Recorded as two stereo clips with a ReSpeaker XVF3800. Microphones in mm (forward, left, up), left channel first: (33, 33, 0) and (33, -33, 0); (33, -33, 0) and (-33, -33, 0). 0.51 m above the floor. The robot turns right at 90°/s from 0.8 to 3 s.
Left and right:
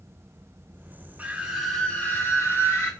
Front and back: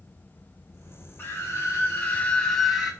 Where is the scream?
35° right, 1.4 m; by 2.9 s 120° left, 1.4 m.